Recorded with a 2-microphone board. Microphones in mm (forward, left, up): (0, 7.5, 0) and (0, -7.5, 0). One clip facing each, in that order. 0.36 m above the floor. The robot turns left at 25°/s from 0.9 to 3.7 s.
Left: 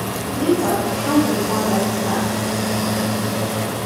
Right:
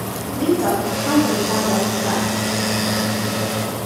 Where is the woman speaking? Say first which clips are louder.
Even; 5° left, 3 m; by 2.3 s 30° right, 3 m.